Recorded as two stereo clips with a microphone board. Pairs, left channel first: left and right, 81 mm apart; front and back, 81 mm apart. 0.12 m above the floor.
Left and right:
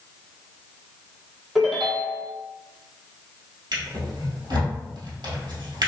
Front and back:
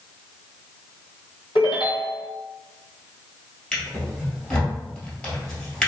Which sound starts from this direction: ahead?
A ringtone, at 1.6 s.